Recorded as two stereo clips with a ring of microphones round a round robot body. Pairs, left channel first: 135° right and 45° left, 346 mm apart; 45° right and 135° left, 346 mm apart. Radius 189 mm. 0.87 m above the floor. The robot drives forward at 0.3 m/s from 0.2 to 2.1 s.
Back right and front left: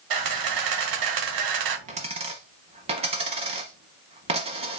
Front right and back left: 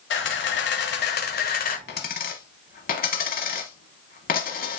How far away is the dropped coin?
About 0.8 m.